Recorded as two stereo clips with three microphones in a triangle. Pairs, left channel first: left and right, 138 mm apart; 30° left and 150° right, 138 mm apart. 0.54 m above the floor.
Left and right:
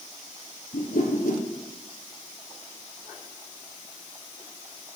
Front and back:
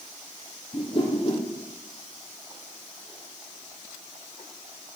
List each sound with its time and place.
0.7 s a whoosh: 80° left, 3 m